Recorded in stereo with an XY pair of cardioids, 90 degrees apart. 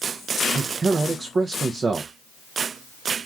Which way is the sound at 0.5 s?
45° right.